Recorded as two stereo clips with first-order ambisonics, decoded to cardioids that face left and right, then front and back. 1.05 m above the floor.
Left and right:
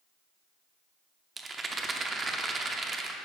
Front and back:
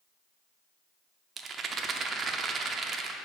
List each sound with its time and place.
1.4 s a rattle: 145° right, 0.6 m